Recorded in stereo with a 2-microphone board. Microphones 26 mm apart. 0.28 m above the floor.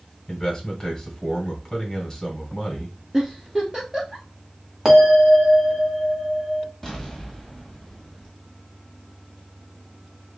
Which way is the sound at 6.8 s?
5° left (ahead or behind).